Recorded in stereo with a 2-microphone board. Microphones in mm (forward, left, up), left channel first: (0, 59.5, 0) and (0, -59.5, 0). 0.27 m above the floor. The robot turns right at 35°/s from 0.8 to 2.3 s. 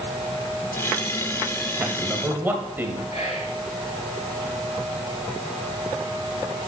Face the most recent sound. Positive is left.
turn(degrees=65)  # may be behind; listen again after turning